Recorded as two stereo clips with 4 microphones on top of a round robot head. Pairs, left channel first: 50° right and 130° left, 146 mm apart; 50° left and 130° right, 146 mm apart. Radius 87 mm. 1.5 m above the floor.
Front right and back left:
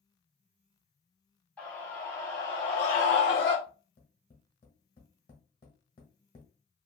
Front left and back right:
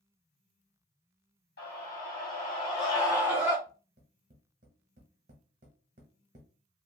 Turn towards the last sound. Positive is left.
turn(degrees=-100)